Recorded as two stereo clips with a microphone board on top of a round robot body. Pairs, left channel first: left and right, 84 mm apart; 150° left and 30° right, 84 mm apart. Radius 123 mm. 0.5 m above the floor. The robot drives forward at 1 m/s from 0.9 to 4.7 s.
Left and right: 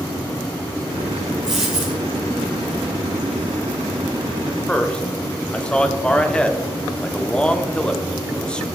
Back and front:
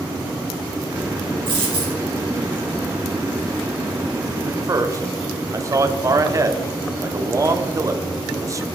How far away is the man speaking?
About 1.3 m.